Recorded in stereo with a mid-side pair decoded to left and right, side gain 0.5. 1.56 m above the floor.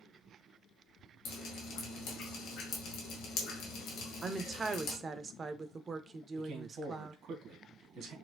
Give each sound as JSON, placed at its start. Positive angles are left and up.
{"t": 1.2, "sound": "dripping", "azimuth_deg": 65, "distance_m": 1.8}
{"t": 4.2, "sound": "a woman speaking", "azimuth_deg": -35, "distance_m": 0.8}
{"t": 6.4, "sound": "a man speaking", "azimuth_deg": -60, "distance_m": 1.8}